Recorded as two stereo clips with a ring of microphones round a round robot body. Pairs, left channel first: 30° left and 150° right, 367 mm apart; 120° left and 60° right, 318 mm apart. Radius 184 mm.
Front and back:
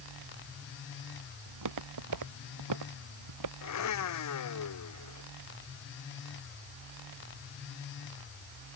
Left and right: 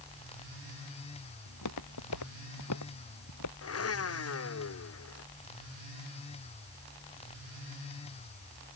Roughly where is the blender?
Left.